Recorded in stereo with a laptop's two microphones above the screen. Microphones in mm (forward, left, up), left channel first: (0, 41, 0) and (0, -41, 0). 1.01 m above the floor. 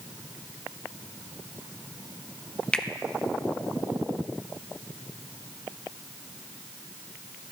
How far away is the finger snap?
About 0.6 m.